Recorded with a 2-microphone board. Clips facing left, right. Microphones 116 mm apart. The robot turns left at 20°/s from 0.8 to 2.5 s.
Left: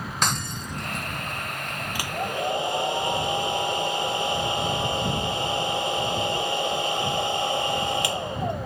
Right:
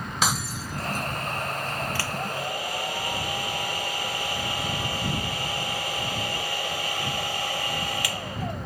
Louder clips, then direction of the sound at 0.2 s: Right 1 dB; 5° right (ahead or behind).